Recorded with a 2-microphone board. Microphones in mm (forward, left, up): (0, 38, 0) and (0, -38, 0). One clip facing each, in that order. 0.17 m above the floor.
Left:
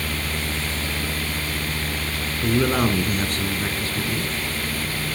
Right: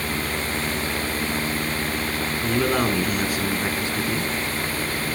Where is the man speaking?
10° left (ahead or behind), 2.5 m; by 4.3 s 30° right (ahead or behind), 1.9 m.